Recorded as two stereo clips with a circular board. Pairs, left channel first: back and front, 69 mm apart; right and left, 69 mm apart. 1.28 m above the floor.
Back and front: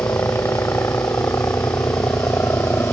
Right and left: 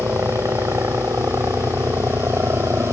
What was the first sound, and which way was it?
A helicopter, 135° left.